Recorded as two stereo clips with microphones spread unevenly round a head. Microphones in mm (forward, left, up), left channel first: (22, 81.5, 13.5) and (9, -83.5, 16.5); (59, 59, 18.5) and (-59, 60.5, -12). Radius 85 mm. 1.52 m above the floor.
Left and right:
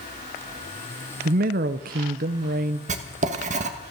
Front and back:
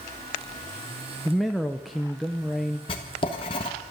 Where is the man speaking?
80° right, 0.6 m.